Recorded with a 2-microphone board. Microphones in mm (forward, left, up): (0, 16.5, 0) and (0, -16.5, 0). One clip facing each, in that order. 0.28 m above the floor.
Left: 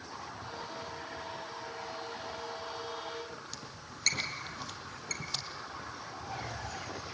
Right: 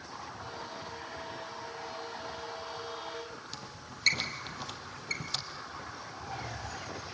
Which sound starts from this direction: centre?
A squeak, at 3.5 s.